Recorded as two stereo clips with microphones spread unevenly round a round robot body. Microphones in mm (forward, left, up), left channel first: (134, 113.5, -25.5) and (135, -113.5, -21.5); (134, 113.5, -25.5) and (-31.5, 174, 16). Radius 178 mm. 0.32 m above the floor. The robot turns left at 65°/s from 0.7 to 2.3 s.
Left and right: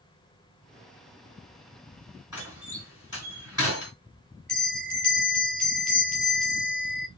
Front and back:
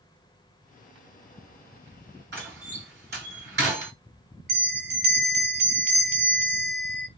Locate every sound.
2.3 s a door slam: 165° right, 1.6 m
4.5 s a bell: 175° left, 1.6 m